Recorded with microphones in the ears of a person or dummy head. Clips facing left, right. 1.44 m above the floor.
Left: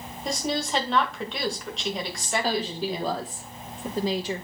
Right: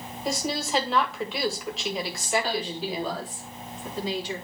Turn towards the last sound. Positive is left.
turn(degrees=35)  # may be behind; listen again after turning